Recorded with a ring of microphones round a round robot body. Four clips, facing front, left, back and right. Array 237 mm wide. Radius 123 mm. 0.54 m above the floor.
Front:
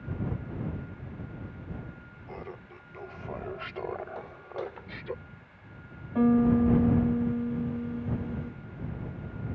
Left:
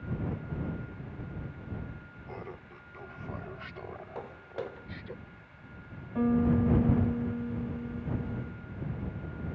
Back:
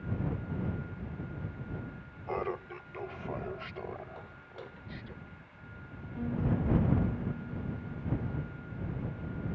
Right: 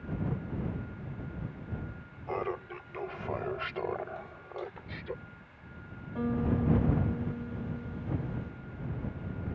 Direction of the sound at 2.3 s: 135° right.